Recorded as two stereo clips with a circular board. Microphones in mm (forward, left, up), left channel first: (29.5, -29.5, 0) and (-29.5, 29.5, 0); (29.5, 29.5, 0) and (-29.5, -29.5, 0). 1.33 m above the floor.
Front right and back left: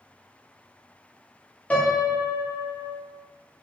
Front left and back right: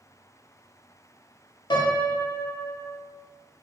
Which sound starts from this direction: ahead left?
A piano, at 1.7 s.